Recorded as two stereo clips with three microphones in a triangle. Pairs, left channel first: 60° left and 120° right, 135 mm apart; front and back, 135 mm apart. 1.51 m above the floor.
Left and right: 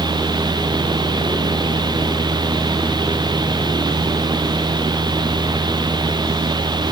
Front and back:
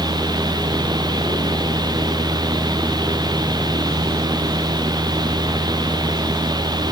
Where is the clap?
I don't hear a clap.